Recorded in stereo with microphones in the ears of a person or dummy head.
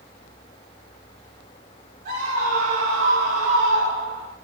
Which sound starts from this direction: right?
A scream, at 2.0 s.